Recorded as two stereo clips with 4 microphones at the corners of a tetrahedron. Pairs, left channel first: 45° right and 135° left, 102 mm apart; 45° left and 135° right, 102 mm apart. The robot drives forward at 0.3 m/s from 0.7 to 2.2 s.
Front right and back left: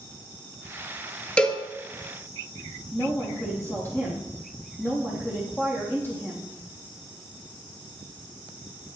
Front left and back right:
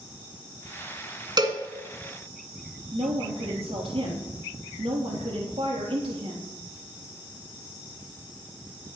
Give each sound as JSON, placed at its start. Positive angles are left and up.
{"t": 1.4, "sound": "a cowbell", "azimuth_deg": -120, "distance_m": 1.6}
{"t": 2.9, "sound": "a woman speaking", "azimuth_deg": -115, "distance_m": 3.5}